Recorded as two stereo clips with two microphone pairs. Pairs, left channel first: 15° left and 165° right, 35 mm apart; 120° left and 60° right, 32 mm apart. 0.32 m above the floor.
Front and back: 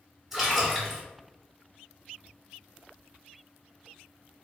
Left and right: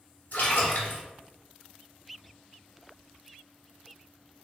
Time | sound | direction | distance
0.3 | a splash | 115° left | 2 m